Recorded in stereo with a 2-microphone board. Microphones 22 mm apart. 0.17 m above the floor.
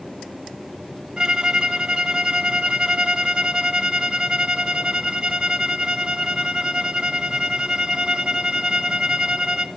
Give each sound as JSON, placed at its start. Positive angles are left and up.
{"t": 1.2, "sound": "a violin", "side_deg": -35, "distance_m": 0.7}